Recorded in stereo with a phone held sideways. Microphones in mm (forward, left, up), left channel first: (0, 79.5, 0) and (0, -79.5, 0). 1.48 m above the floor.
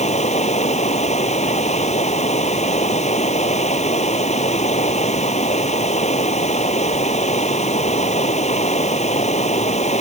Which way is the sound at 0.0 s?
45° left (ahead or behind).